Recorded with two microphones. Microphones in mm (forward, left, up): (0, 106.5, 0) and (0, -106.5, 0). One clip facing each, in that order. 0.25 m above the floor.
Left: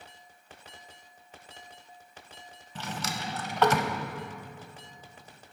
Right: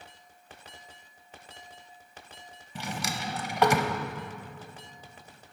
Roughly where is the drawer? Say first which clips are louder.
Right 1 dB; centre.